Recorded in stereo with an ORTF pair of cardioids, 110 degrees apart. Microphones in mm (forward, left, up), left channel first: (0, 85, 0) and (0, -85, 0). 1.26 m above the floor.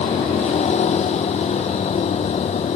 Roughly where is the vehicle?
Ahead left.